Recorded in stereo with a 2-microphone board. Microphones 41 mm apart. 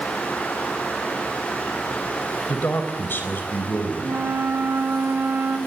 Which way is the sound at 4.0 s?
70° right (ahead or behind).